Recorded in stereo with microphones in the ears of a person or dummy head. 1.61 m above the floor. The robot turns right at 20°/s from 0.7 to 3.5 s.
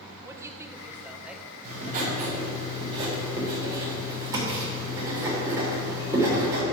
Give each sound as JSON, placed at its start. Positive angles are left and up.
{"t": 0.2, "sound": "a woman speaking", "azimuth_deg": -15, "distance_m": 1.0}
{"t": 1.6, "sound": "writing", "azimuth_deg": -50, "distance_m": 3.5}